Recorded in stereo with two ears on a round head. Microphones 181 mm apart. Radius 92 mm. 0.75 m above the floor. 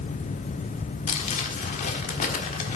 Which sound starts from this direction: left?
Crumpling, at 1.1 s.